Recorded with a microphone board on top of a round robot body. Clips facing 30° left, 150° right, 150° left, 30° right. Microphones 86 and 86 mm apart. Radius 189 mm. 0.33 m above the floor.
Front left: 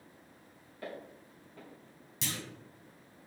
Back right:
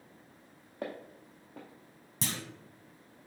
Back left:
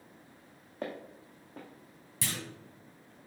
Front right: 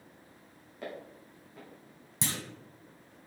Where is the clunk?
100° right, 0.8 m.